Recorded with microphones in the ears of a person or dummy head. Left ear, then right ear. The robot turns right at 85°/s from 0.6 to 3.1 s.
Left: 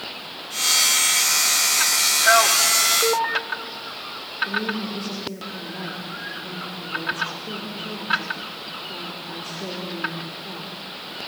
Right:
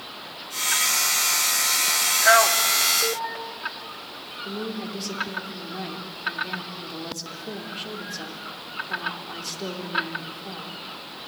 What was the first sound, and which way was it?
A man speaking, 30° right (ahead or behind).